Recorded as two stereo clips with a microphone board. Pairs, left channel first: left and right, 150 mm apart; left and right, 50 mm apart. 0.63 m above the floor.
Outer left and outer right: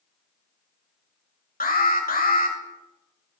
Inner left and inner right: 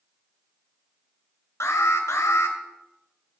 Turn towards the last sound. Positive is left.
turn(degrees=80)